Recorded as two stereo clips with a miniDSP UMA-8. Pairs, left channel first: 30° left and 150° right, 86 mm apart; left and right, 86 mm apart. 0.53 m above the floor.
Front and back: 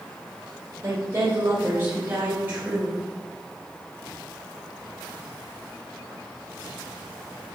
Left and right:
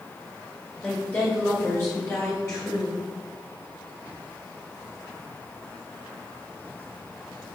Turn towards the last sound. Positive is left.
turn(degrees=140)